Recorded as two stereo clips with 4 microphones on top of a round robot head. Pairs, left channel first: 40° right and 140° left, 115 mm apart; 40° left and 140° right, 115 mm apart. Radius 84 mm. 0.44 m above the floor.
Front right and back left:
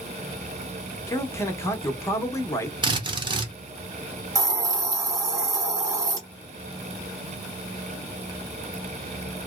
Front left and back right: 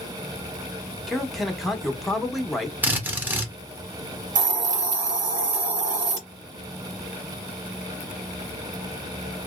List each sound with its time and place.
1.1 s a man speaking: 50° right, 0.9 m
2.8 s a drill: 155° left, 1.3 m
4.3 s a hiss: 155° right, 1.6 m